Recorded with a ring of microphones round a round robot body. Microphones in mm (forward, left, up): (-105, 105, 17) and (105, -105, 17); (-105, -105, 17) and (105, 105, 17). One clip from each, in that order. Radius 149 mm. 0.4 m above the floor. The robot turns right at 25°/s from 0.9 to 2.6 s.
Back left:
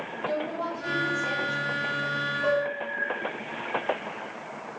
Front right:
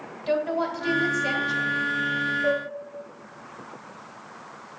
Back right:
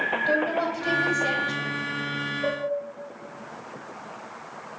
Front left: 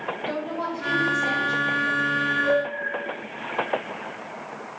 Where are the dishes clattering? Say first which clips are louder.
Even, front left 3 dB; 175° left, 2 m; by 2.7 s straight behind, 2 m.